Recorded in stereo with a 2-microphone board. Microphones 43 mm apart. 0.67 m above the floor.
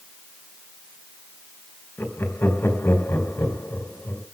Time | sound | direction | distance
2.0 | laughter | 75° left (ahead or behind) | 3.5 m